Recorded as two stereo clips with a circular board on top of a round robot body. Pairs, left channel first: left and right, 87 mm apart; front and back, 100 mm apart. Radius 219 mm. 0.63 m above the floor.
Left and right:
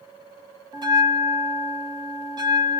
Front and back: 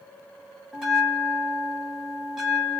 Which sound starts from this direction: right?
A bell, at 0.7 s.